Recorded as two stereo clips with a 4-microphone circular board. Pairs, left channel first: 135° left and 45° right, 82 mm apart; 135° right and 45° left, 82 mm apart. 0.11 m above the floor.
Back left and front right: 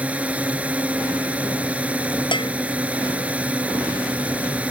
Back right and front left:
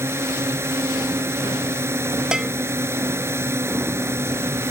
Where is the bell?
125° left.